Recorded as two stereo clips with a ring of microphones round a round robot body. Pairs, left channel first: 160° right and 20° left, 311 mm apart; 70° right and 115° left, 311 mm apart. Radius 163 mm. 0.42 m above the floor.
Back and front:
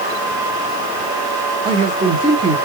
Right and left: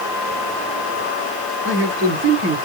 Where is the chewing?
No chewing in this recording.